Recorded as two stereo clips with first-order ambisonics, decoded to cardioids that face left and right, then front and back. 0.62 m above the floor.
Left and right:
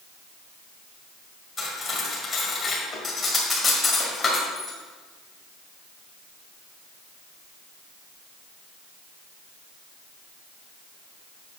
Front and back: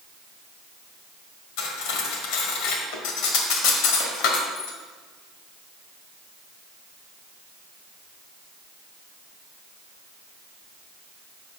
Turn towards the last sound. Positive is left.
turn(degrees=20)